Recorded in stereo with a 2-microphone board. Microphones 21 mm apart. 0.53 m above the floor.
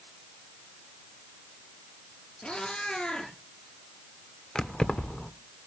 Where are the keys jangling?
40° left (ahead or behind), 0.9 m.